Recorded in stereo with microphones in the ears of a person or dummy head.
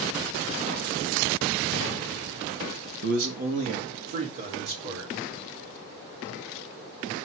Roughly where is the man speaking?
Right.